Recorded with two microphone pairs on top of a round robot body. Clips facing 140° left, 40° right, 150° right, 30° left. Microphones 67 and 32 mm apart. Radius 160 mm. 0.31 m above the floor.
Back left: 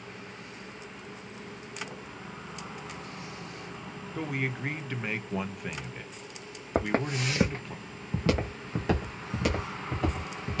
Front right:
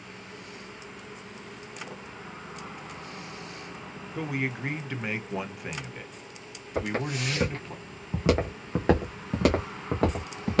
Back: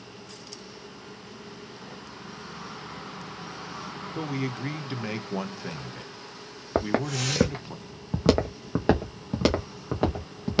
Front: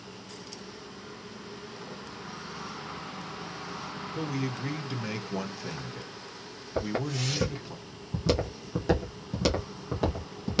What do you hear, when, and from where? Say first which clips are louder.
4.2 s a man speaking: front right 2 dB, back 2 dB; 125° right, 1.3 m
6.8 s footsteps: back left 2 dB, back 5 dB; 170° right, 1.0 m; by 10.6 s 80° right, 1.9 m